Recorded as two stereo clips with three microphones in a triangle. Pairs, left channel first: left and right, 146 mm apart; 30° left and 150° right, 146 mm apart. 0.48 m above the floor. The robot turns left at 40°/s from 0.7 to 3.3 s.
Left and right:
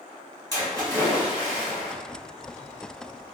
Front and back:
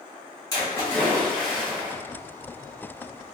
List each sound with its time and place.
0.5 s a splash: 30° right, 1.4 m; by 1.9 s 80° right, 1.4 m